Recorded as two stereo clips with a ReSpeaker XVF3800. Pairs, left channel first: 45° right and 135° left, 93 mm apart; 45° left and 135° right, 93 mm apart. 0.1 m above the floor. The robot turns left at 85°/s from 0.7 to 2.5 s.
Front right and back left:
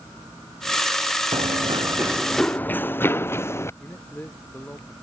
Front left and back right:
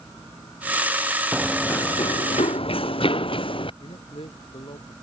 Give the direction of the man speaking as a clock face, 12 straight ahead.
11 o'clock.